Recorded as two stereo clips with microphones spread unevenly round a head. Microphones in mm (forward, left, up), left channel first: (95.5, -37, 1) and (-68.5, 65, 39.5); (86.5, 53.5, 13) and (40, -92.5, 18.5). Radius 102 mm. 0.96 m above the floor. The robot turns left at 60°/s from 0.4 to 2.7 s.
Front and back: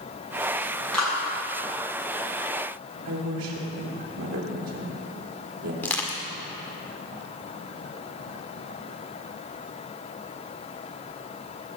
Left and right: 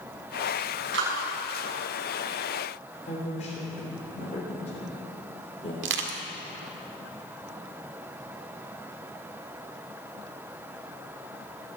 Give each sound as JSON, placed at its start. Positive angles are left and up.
{"t": 0.9, "sound": "a clap", "azimuth_deg": -120, "distance_m": 6.5}
{"t": 3.0, "sound": "a woman speaking", "azimuth_deg": 130, "distance_m": 3.0}
{"t": 5.8, "sound": "crushing", "azimuth_deg": -115, "distance_m": 1.8}